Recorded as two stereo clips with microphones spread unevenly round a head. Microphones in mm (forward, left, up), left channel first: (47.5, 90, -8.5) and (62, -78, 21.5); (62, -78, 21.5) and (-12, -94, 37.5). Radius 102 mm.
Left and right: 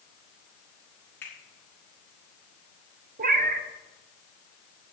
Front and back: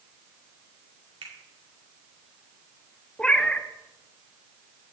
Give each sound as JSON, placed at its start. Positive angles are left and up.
{"t": 1.2, "sound": "a finger snap", "azimuth_deg": 175, "distance_m": 2.0}
{"t": 3.2, "sound": "a cat meowing", "azimuth_deg": -70, "distance_m": 0.8}